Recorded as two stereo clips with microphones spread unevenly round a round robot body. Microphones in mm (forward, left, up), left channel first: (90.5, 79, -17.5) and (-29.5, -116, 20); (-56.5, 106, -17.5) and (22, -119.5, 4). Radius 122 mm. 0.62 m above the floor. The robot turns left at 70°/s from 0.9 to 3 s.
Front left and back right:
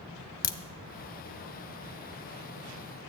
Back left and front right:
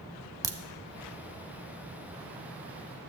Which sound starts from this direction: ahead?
A crack, at 0.4 s.